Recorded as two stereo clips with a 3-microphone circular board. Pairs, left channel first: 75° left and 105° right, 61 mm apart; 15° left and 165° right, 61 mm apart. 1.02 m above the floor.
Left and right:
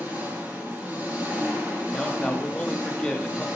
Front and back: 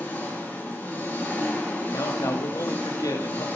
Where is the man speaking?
5° right, 1.9 m.